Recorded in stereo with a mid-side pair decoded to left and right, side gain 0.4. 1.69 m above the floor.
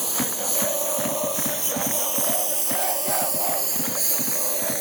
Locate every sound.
0.0 s a lawn mower: 20° right; by 4.8 s 30° right